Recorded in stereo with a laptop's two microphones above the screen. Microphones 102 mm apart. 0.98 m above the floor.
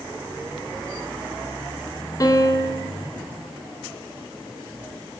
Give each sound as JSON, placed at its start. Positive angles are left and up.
{"t": 2.2, "sound": "a piano", "side_deg": 40, "distance_m": 1.7}